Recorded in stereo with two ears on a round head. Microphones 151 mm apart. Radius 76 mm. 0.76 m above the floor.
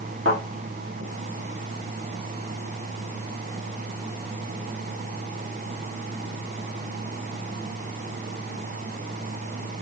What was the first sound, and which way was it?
A thud, 80° right.